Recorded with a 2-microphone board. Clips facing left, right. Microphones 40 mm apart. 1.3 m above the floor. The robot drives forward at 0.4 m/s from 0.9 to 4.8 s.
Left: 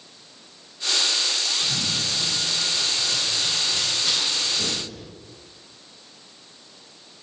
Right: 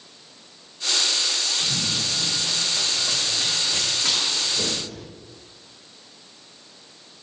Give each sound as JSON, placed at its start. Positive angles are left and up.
{"t": 1.6, "sound": "running footsteps", "side_deg": -60, "distance_m": 5.5}